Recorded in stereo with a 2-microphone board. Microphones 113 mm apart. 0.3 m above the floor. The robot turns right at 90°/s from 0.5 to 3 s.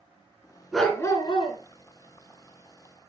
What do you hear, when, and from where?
0.7 s a dog barking: straight ahead, 1.6 m; by 1.6 s 75° left, 1.6 m